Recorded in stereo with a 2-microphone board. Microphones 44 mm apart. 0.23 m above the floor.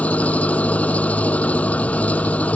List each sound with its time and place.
0.0 s an engine running: 35° left (ahead or behind)